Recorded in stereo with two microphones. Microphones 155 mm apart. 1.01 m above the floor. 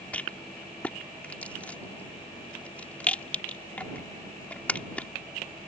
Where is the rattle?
10° left (ahead or behind).